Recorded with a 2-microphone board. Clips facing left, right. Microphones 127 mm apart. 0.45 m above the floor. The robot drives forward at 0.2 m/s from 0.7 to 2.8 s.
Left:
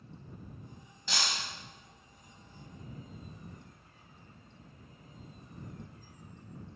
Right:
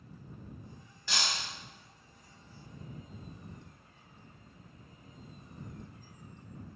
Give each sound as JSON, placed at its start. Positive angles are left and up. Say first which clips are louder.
{"t": 1.1, "sound": "breaking glass", "louder": "even", "side_deg": 20, "distance_m": 1.6}